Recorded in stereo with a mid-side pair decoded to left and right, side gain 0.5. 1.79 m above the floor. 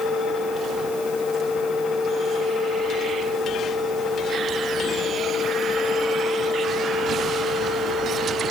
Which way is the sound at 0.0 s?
55° left.